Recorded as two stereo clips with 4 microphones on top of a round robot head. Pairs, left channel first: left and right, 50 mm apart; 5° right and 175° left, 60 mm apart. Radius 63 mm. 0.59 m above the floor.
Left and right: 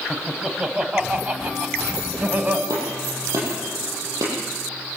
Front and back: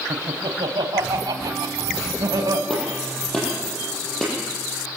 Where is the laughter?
170° right, 4 m; by 2.6 s 150° right, 4.5 m.